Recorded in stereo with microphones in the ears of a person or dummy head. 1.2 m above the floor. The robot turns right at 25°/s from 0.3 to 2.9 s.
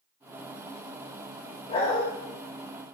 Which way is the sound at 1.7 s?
30° left (ahead or behind).